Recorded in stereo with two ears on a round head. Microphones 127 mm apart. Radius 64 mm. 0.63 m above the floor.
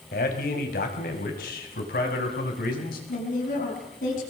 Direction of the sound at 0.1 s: 65° left (ahead or behind).